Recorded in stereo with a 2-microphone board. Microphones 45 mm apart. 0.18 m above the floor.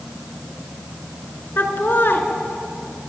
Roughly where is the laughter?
Left.